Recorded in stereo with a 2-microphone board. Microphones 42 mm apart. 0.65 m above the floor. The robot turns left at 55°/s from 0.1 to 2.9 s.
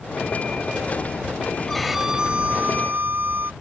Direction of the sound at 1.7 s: 10° left.